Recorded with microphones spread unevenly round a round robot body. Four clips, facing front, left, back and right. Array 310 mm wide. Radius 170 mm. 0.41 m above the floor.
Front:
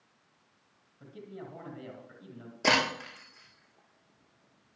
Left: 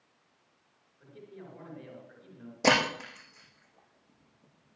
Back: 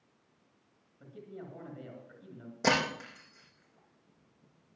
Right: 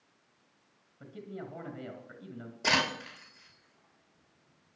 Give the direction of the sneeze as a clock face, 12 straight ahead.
No sneeze in this recording.